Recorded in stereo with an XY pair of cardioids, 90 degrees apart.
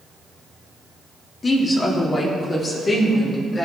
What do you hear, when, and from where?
1.4 s a woman speaking: 40° left, 2.5 m